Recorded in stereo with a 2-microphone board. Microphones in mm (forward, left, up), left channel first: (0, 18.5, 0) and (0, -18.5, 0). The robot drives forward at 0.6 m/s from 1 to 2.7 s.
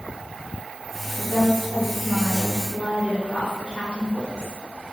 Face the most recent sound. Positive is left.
turn(degrees=5)  # may be behind; listen again after turning